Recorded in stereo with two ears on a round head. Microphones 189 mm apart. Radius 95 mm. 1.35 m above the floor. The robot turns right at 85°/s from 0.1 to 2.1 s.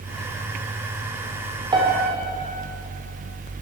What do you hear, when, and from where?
1.7 s a piano: 155° right, 1.8 m; by 2.1 s 125° right, 1.8 m